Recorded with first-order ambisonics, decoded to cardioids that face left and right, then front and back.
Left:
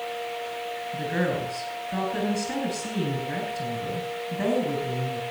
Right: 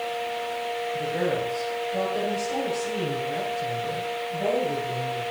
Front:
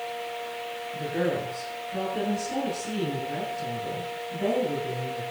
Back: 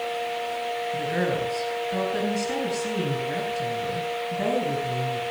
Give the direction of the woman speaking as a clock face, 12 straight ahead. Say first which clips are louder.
Even, even; 8 o'clock.